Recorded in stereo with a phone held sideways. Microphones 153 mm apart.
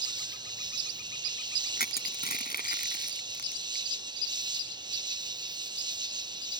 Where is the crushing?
85° left.